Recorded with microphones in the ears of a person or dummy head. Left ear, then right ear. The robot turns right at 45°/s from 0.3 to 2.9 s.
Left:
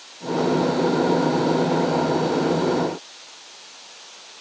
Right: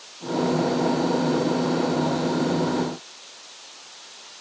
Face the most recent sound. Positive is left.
No sound to turn to.